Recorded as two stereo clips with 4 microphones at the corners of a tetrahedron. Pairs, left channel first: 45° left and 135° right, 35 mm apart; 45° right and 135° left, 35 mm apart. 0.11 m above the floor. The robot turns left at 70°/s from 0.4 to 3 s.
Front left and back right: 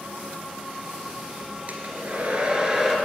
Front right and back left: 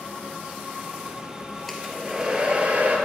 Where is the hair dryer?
125° right, 1.9 m; by 3.0 s 145° left, 1.9 m.